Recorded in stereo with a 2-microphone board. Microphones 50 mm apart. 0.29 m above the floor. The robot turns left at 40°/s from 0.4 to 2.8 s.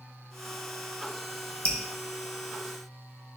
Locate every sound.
1.6 s dripping: 30° left (ahead or behind), 1.3 m; by 1.8 s 25° left (ahead or behind), 1.3 m